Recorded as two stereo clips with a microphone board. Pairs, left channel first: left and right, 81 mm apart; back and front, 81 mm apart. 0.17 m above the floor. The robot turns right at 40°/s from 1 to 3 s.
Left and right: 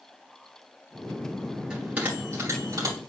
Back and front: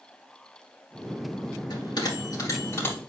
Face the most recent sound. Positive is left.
turn(degrees=-115)